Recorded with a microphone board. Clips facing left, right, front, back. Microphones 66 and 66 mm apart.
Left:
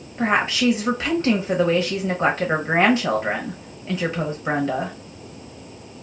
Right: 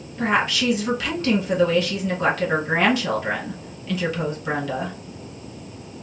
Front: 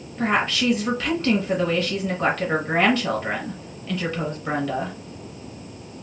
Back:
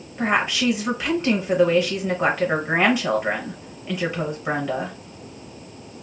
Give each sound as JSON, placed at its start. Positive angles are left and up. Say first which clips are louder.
{"t": 0.2, "sound": "a woman speaking", "louder": "left 1 dB, back 1 dB", "azimuth_deg": 120, "distance_m": 0.7}